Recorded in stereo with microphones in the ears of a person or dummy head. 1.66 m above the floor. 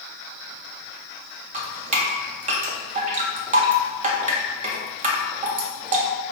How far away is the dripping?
About 0.6 m.